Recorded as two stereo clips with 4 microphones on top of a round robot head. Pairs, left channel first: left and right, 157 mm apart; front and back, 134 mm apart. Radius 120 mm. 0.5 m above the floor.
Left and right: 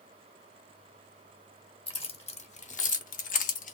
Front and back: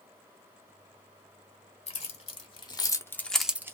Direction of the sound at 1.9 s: 35° left.